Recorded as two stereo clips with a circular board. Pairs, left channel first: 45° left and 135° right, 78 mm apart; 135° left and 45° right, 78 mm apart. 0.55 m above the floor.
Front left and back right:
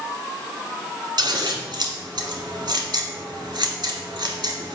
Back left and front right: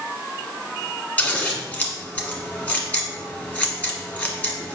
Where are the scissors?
155° right, 1.5 m.